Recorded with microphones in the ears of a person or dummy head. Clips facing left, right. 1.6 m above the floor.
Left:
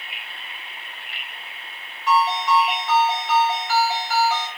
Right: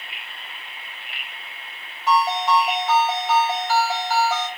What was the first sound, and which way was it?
A ringtone, 35° right (ahead or behind).